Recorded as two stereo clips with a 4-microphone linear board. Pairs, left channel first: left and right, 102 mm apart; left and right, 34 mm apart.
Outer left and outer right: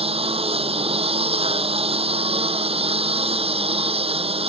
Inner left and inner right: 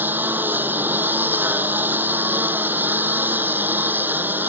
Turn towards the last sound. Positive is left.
turn(degrees=-80)